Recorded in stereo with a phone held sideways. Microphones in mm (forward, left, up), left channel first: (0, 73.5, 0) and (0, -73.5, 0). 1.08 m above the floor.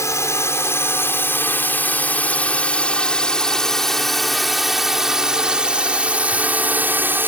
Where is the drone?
20° left (ahead or behind); by 7.3 s 15° right (ahead or behind).